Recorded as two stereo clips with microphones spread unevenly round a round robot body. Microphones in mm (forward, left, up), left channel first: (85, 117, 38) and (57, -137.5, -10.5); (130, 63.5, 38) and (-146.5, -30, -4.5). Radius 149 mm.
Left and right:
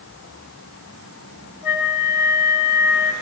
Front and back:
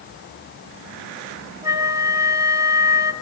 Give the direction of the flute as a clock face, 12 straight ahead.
8 o'clock.